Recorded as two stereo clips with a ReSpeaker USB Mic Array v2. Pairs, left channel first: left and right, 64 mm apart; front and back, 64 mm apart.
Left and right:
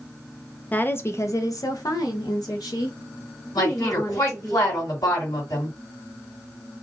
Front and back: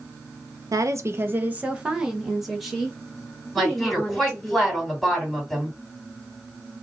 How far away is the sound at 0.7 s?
About 0.7 m.